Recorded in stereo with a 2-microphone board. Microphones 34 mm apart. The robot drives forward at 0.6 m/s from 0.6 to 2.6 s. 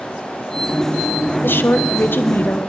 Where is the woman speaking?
80° left, 0.8 m; by 2.6 s 55° left (ahead or behind), 1.0 m.